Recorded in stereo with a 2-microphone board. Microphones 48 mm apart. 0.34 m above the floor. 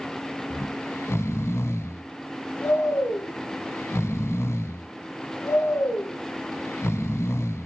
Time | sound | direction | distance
0.5 | snoring | 70° left (ahead or behind) | 0.6 m